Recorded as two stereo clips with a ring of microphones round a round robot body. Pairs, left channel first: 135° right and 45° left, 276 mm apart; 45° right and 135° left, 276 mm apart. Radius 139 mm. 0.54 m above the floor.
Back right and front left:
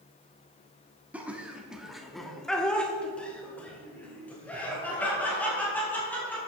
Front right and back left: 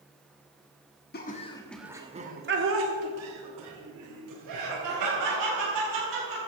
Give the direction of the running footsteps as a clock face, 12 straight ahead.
No running footsteps in this recording.